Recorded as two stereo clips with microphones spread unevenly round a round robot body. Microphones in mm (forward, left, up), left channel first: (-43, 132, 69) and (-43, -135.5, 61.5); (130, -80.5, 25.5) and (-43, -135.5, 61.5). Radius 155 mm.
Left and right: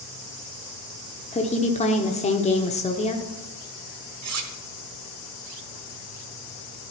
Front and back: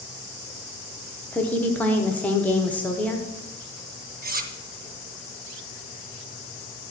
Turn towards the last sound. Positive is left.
turn(degrees=-115)